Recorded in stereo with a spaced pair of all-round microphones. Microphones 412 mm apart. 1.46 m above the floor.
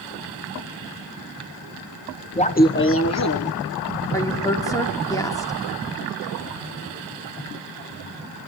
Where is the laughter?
15° left (ahead or behind), 1.1 m; by 3.5 s 45° left (ahead or behind), 1.4 m.